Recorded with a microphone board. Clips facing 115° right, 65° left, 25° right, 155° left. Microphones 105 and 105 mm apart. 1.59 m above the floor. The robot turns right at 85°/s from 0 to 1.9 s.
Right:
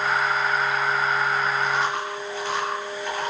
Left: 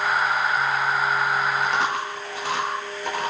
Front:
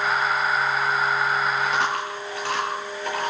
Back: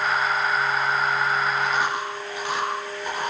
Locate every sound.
1.6 s chewing: 60° left, 9.5 m; by 3.3 s 85° left, 9.5 m